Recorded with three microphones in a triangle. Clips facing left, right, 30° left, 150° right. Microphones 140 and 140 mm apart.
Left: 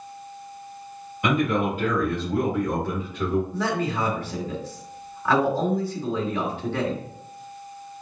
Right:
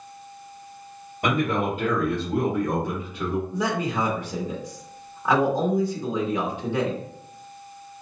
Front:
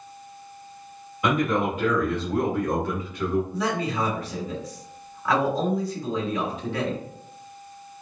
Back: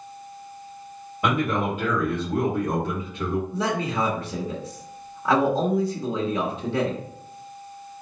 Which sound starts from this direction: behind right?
A man speaking, at 3.5 s.